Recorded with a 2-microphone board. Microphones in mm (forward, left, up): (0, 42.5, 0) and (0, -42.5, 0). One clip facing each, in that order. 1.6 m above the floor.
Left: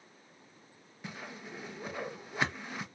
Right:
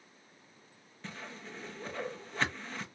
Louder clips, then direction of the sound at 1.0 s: Left 1 dB; 10° left (ahead or behind).